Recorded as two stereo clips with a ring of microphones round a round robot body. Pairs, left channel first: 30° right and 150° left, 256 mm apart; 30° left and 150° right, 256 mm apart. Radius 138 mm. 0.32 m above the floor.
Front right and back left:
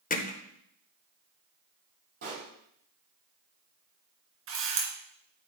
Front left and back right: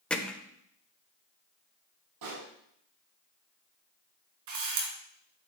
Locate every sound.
0.1 s hammering: 55° right, 1.2 m
2.2 s a pop: 160° right, 5.5 m
4.5 s a camera shutter: 165° right, 3 m